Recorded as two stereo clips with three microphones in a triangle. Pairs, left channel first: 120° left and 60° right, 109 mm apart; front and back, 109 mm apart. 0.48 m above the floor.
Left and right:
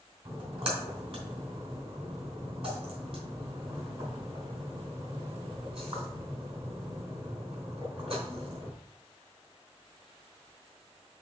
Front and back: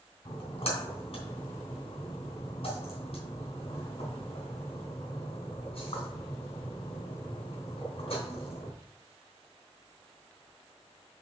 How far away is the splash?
About 3 m.